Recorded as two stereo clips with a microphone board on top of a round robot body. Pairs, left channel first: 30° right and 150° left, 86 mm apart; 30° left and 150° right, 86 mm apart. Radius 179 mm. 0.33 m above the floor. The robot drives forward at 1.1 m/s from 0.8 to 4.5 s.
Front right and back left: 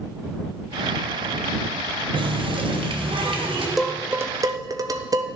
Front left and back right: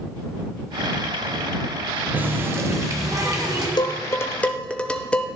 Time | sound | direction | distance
2.1 | a running tap | 140° left | 1.3 m
3.8 | dishes clattering | 60° left | 1.2 m